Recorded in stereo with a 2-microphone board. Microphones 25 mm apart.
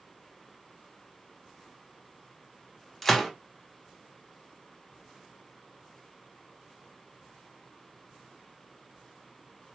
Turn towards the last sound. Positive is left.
turn(degrees=10)  # may be behind; listen again after turning